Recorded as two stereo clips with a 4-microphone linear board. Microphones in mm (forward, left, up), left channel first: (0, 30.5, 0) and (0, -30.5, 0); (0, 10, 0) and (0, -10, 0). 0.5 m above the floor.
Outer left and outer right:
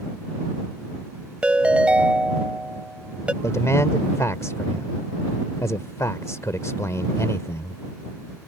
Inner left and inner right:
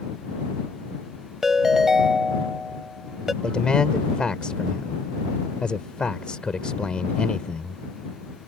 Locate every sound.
1.4 s a ringtone: 20° right (ahead or behind)
3.4 s a man speaking: 55° left (ahead or behind)